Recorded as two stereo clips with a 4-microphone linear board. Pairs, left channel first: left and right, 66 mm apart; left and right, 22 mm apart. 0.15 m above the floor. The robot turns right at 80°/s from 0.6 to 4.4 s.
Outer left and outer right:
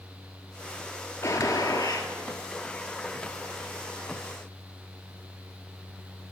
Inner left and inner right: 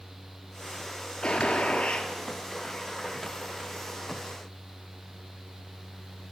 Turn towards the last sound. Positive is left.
turn(degrees=-55)